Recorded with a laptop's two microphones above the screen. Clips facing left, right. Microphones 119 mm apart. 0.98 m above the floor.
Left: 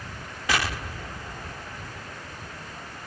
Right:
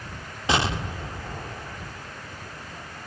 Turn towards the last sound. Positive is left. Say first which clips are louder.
# right 3 dB
turn(degrees=-25)  # may be behind; listen again after turning